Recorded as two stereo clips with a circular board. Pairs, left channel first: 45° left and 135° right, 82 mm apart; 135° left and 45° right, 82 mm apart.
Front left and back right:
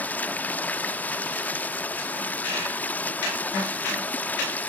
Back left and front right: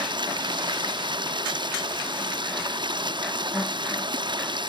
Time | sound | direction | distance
0.0 | running water | 25° right | 0.9 m